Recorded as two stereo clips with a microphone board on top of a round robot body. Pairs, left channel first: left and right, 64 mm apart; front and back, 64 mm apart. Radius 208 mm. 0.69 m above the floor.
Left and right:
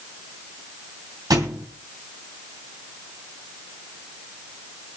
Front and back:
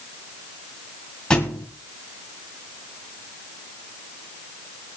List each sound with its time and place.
1.3 s a thud: 75° right, 2.5 m